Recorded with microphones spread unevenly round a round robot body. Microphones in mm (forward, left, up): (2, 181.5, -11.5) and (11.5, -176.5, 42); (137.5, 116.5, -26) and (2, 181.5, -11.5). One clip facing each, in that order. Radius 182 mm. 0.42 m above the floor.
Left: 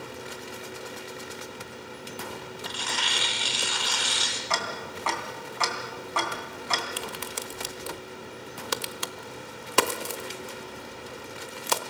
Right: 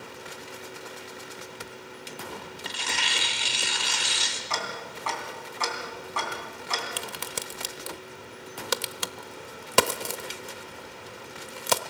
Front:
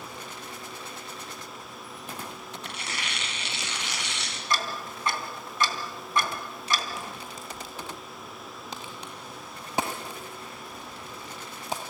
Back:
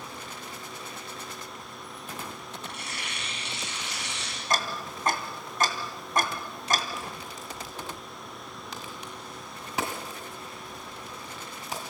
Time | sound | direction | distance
2.6 | tearing paper | 30° right | 1.9 m
4.5 | ticking | 105° left | 2.5 m
7.0 | a crack | 100° right | 1.0 m